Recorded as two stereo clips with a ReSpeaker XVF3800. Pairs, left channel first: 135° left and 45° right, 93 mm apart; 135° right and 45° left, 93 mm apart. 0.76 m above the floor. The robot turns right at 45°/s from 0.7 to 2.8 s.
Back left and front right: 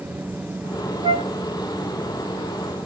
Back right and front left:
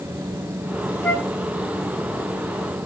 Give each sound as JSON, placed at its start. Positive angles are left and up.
{"t": 1.0, "sound": "a flute", "azimuth_deg": -60, "distance_m": 0.9}